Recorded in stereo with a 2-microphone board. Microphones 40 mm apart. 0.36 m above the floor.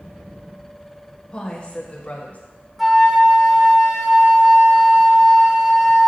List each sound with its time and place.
1.3 s a woman speaking: 20° left (ahead or behind), 1.3 m; by 2.4 s 45° left (ahead or behind), 1.7 m
2.8 s a flute: 10° right (ahead or behind), 1.0 m